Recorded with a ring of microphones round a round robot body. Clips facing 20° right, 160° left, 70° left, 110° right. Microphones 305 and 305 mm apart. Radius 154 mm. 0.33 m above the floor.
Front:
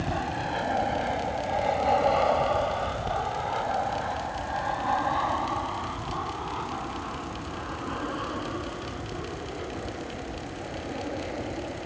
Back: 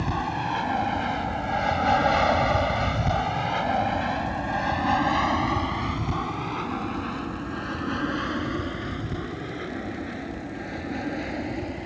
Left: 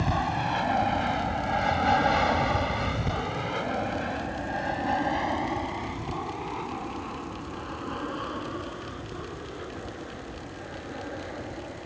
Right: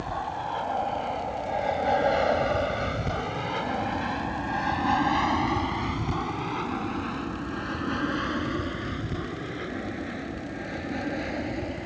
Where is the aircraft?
85° left; by 11.9 s 150° right.